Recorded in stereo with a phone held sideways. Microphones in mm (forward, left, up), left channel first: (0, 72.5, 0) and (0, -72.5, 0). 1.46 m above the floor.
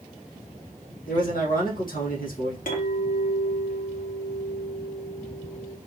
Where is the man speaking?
80° left, 1.9 m.